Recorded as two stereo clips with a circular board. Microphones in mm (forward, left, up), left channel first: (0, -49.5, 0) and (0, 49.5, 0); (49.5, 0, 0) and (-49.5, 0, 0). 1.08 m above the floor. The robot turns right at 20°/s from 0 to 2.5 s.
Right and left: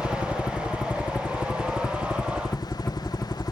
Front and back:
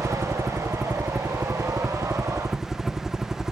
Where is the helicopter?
150° right; by 3.5 s 100° right.